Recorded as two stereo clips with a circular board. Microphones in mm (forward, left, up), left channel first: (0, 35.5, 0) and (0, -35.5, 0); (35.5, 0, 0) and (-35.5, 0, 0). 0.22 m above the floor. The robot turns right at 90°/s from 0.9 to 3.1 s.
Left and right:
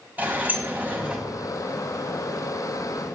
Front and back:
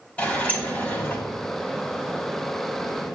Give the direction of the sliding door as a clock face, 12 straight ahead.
2 o'clock.